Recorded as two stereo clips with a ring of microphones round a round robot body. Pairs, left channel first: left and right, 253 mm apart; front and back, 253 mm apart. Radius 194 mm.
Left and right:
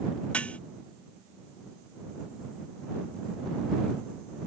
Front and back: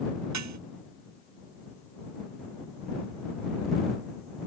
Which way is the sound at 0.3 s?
175° left.